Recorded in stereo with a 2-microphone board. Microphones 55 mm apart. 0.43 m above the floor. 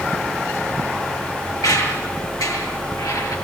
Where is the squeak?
85° left, 6.5 m.